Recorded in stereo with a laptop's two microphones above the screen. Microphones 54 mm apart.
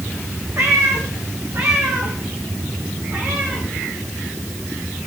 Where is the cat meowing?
70° right (ahead or behind), 5.5 m; by 3.6 s 50° right (ahead or behind), 8 m.